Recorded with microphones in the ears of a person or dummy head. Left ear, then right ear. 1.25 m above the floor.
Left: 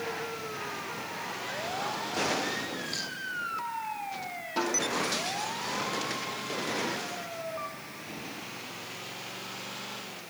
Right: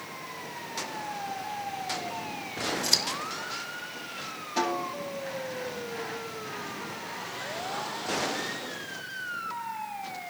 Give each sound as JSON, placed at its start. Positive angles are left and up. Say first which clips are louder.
{"t": 2.8, "sound": "scissors", "louder": "right 8 dB", "side_deg": -60, "distance_m": 1.1}
{"t": 4.6, "sound": "a snare drum", "louder": "right 1 dB", "side_deg": 15, "distance_m": 4.0}